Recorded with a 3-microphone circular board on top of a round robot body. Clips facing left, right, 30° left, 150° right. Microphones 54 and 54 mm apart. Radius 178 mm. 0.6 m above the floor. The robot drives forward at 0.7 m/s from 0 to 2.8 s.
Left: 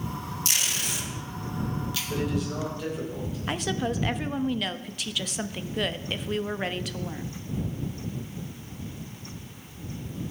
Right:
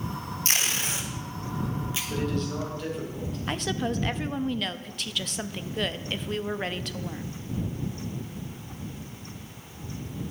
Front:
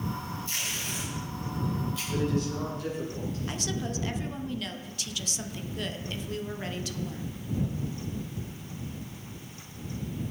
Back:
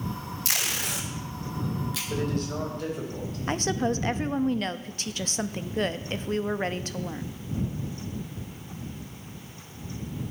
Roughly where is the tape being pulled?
Behind right.